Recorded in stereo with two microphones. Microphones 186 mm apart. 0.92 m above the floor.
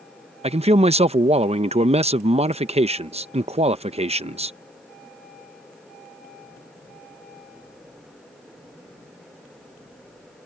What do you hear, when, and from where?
0.4 s a man speaking: 35° right (ahead or behind)